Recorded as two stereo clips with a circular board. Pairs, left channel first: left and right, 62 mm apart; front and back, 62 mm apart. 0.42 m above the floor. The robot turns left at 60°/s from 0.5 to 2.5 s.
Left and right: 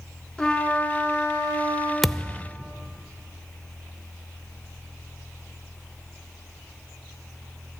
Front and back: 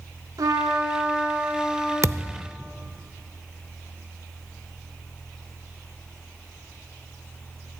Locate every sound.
0.4 s a trumpet: 165° left, 2.5 m; by 1.9 s 80° left, 2.5 m
2.0 s a thud: straight behind, 0.5 m; by 2.5 s 150° left, 0.5 m